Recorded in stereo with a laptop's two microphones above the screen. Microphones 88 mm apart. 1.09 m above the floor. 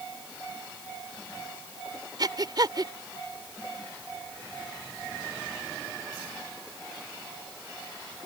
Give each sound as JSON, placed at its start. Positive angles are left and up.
{"t": 2.2, "sound": "breathing", "side_deg": -50}